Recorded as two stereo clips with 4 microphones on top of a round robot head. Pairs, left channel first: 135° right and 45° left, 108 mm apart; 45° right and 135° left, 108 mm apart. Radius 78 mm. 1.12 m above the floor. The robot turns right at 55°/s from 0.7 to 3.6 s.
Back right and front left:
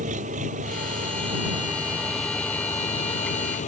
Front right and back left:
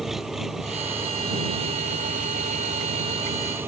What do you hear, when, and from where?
0.0 s an engine running: 50° left; by 3.7 s 150° right